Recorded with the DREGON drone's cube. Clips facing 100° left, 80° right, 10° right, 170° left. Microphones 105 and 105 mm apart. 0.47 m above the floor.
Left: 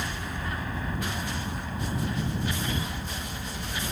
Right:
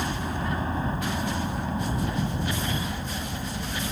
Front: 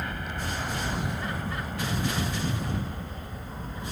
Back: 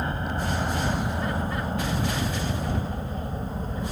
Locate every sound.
0.0 s a helicopter: 135° right; by 3.9 s 145° right